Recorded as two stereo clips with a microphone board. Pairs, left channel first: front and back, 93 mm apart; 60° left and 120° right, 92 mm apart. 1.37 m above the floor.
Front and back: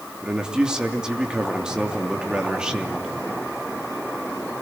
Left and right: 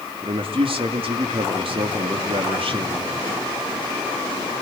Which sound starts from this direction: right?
A man speaking, at 0.2 s.